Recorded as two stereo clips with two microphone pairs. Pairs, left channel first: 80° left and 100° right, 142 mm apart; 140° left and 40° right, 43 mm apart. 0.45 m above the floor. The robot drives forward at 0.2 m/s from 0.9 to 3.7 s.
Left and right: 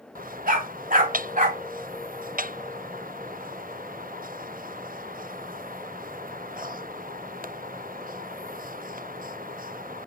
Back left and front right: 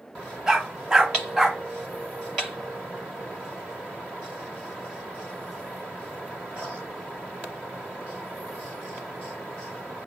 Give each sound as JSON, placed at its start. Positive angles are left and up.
{"t": 0.5, "sound": "a dog barking", "azimuth_deg": -120, "distance_m": 1.2}